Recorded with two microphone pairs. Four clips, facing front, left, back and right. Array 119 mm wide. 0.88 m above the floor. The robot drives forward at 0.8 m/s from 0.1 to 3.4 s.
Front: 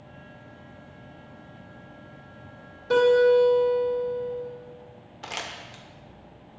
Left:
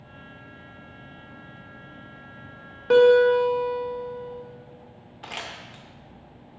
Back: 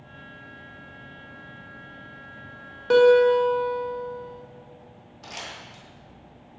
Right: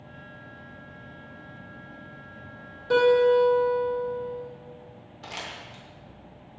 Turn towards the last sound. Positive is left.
turn(degrees=30)